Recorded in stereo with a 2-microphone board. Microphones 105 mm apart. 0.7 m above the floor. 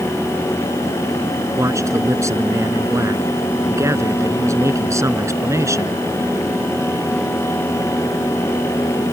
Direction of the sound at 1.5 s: 30° right (ahead or behind).